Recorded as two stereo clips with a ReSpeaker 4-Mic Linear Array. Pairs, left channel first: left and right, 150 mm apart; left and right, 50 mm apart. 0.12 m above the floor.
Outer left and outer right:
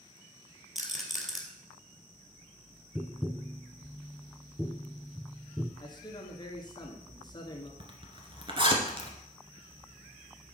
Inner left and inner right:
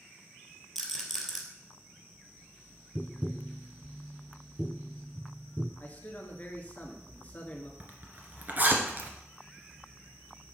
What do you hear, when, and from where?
0.8 s a rattle: centre (ahead or behind), 2 m
3.0 s tapping: centre (ahead or behind), 0.6 m
5.8 s a man speaking: 30° left (ahead or behind), 1.8 m
7.8 s a zipper: 35° right (ahead or behind), 1.7 m